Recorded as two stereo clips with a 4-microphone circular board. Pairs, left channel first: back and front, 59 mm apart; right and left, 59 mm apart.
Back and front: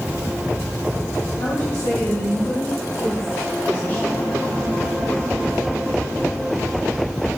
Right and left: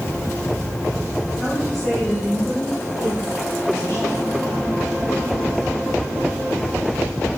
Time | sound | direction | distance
1.4 | a woman speaking | straight behind | 3 m